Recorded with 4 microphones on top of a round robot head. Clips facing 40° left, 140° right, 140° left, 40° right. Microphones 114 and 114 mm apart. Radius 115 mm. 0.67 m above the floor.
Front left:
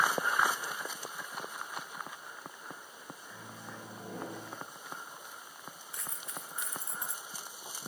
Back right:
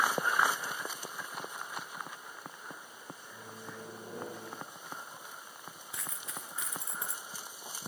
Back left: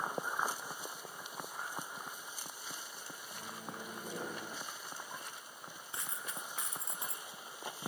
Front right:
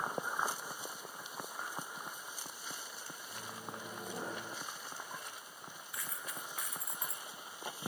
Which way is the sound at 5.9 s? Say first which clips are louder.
Back right 1 dB, back left 1 dB; 155° right.